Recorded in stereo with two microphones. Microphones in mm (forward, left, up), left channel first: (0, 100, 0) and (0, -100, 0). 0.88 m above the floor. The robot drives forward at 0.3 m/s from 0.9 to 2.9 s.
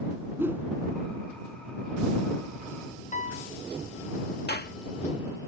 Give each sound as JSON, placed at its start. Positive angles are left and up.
{"t": 0.4, "sound": "a whoosh", "side_deg": -10}
{"t": 3.1, "sound": "a piano", "side_deg": 40}
{"t": 4.5, "sound": "a clap", "side_deg": 55}